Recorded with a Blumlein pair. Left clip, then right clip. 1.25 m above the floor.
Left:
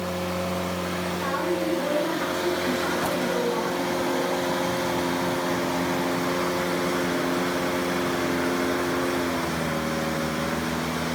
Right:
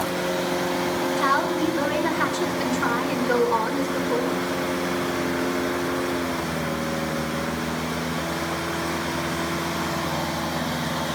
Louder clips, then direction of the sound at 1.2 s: Right 5 dB; 50° right.